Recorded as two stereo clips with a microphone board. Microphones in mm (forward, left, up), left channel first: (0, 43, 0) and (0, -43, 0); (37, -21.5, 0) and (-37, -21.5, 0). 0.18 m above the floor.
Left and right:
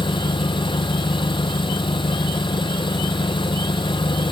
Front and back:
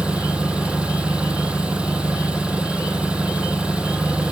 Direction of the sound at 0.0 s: 105° left.